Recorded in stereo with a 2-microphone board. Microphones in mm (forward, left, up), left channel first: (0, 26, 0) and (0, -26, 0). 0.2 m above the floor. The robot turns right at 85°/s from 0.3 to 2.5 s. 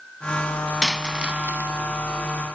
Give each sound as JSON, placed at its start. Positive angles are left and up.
{"t": 0.8, "sound": "a dropped coin", "side_deg": 5, "distance_m": 0.8}